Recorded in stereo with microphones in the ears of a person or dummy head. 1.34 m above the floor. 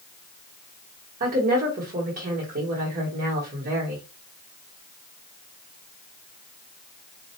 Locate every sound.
1.2 s a woman speaking: 50° right (ahead or behind), 1.0 m